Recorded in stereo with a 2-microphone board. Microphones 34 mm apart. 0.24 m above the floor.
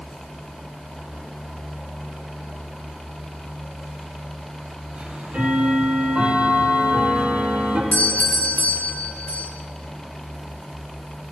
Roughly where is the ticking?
Right.